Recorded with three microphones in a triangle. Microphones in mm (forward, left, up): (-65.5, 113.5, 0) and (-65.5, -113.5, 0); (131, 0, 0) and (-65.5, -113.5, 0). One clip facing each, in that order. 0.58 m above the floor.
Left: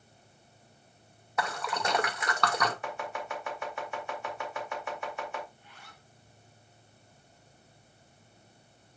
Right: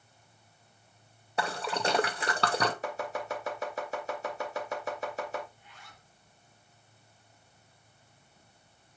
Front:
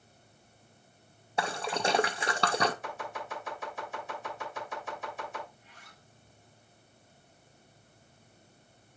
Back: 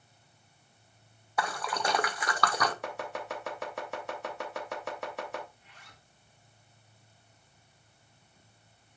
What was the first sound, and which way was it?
A splash, 35° right.